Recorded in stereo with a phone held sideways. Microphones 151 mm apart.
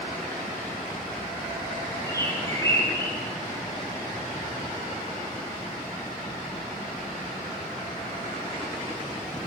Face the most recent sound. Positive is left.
turn(degrees=20)  # may be behind; listen again after turning